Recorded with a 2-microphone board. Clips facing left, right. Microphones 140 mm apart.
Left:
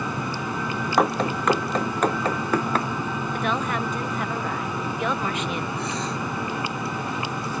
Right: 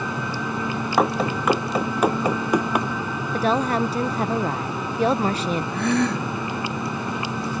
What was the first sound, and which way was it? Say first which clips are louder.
Running footsteps: right 1 dB; centre (ahead or behind).